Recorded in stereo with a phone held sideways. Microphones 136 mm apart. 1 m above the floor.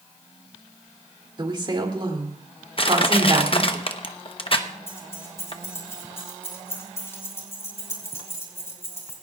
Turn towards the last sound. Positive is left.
turn(degrees=20)  # may be behind; listen again after turning